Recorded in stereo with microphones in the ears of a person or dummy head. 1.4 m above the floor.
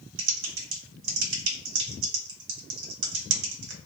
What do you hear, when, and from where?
0.2 s typing on a keyboard: 60° right (ahead or behind), 0.9 m